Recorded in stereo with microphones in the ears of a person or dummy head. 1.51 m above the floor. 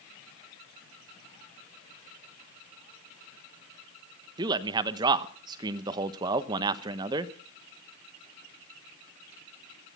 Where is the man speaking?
25° right (ahead or behind), 1.2 m.